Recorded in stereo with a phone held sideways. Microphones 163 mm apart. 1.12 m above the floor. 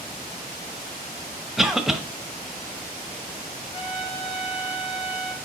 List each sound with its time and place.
1.6 s a cough: centre (ahead or behind), 0.9 m
3.7 s a trumpet: 25° left (ahead or behind), 1.7 m